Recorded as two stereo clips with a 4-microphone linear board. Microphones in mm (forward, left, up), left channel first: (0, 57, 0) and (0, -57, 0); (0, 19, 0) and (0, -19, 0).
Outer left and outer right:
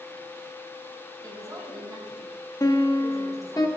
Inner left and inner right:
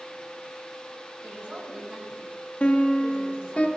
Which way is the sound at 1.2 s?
35° right (ahead or behind).